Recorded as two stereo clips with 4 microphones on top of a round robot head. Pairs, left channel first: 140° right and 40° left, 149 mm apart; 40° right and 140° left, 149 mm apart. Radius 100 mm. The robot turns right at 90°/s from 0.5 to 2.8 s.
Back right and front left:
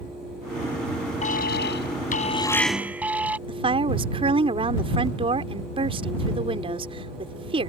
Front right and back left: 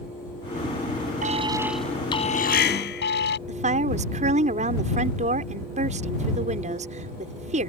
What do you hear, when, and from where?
1.2 s an alarm: 175° left; by 3.4 s 40° right
3.5 s a woman speaking: 95° left